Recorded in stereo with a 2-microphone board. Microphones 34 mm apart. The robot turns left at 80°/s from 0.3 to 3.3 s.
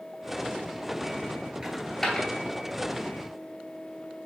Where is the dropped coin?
15° right (ahead or behind), 0.9 m; by 2.3 s 25° left (ahead or behind), 0.9 m.